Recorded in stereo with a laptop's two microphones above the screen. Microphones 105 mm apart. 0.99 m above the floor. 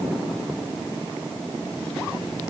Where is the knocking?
I don't hear knocking.